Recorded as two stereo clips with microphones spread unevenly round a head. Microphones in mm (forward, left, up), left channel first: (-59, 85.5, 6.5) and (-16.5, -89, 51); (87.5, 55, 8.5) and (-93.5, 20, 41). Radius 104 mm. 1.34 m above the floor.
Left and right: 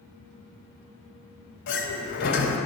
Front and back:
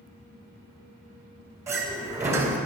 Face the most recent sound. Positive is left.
turn(degrees=120)